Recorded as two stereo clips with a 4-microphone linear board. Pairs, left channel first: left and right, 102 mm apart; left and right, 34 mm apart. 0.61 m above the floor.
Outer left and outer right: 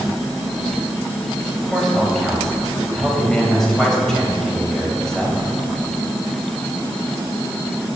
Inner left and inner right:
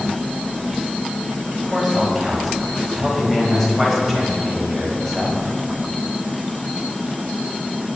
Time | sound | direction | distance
1.5 | a man speaking | 5° left (ahead or behind) | 3 m